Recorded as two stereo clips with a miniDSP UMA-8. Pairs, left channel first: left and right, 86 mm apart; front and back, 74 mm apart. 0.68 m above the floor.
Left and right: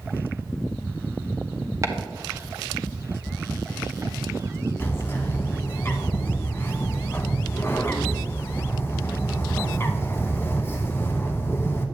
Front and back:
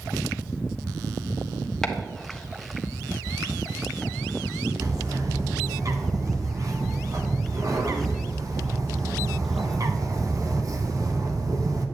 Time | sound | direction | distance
1.8 | chopping | 75° right | 1.0 m
4.8 | a bird | 150° left | 1.0 m